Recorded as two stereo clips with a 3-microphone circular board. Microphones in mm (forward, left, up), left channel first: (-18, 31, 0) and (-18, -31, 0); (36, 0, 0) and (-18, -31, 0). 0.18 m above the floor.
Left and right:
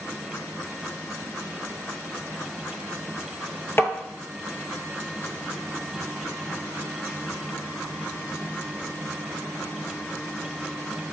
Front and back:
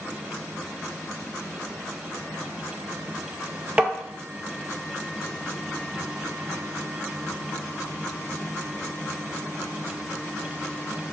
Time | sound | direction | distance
3.8 | tapping | 140° left | 0.6 m